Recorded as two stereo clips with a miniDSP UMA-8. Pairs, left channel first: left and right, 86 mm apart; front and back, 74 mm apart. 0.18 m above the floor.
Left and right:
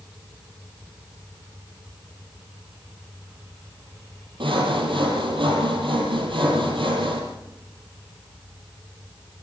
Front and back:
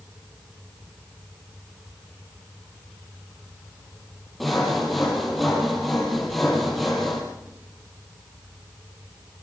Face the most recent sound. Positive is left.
turn(degrees=-90)